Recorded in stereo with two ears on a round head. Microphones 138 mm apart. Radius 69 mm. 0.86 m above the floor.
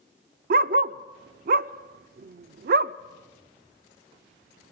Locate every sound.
0.5 s a dog barking: 60° right (ahead or behind), 0.5 m